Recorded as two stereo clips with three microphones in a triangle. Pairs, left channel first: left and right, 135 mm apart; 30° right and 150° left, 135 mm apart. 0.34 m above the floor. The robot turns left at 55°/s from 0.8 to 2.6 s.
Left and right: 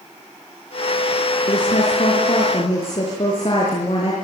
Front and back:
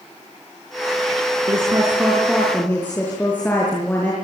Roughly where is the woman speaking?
Left.